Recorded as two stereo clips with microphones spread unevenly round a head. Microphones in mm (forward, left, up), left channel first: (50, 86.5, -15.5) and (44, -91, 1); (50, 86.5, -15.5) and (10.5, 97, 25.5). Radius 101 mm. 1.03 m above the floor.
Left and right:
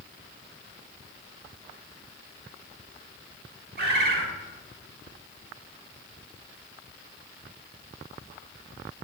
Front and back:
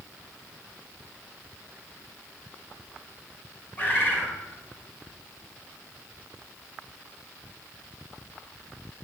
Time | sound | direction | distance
3.8 | a bird | 120° right | 1.4 m